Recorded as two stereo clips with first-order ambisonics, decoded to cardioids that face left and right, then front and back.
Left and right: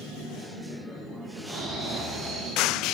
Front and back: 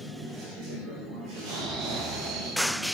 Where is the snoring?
160° right, 3.5 m.